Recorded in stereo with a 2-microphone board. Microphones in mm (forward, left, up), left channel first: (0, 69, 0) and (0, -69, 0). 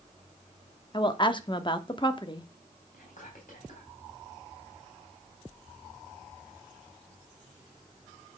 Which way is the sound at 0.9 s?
35° left (ahead or behind).